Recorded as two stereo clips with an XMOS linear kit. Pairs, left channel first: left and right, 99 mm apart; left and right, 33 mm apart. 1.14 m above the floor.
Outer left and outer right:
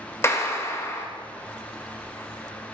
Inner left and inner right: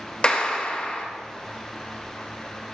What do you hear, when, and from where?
0.2 s a clap: 30° left (ahead or behind), 1.6 m